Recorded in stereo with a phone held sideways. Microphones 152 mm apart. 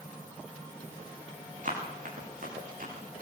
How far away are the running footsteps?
About 8 m.